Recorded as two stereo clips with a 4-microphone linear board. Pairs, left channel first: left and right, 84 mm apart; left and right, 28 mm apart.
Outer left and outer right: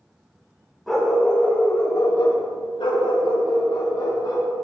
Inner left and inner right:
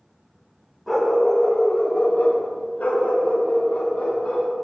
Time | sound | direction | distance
0.9 | a dog barking | centre (ahead or behind) | 2 m